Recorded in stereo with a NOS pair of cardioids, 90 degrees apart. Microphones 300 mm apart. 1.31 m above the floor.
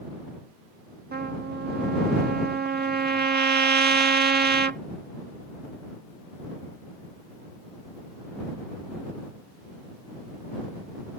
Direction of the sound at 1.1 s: 35° right.